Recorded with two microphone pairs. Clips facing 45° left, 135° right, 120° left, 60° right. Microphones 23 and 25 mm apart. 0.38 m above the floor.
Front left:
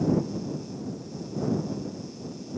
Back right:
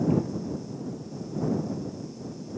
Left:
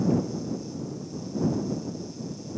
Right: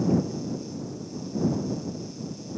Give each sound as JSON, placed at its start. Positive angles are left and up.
{"t": 0.1, "sound": "a cupboard door", "azimuth_deg": -155}